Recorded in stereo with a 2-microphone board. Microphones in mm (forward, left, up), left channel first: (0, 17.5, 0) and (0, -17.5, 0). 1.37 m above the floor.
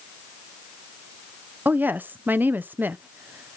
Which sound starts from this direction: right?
A woman speaking, at 1.6 s.